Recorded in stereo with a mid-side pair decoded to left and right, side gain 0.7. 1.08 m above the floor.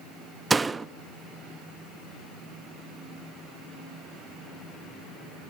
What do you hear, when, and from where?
0.5 s a door slam: 15° right, 0.8 m